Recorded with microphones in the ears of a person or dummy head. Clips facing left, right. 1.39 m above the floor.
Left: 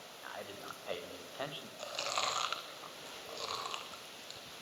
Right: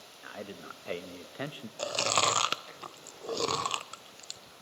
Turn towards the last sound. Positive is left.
turn(degrees=-60)  # may be behind; listen again after turning